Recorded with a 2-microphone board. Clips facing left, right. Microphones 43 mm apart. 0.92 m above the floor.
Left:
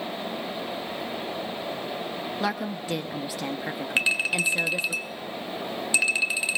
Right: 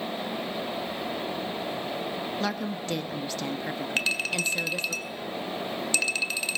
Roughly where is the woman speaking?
Centre.